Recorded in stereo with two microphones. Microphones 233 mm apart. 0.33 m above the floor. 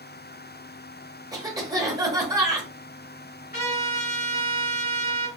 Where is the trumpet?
40° left (ahead or behind), 2 m.